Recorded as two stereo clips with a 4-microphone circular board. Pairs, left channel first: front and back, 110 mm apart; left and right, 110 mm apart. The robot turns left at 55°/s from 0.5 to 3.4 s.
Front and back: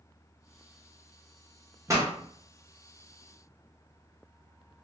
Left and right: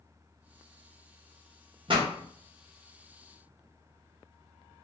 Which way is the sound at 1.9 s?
120° right.